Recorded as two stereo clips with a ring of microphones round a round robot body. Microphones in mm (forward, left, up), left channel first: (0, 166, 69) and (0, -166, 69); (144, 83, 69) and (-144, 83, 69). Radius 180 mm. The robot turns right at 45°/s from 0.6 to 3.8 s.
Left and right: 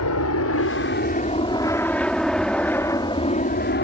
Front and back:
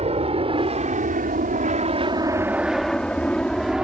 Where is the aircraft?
115° left; by 3.8 s 95° left.